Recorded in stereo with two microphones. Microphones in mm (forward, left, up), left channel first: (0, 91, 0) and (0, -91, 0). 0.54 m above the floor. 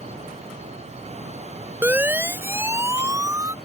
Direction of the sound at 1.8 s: 10° right (ahead or behind).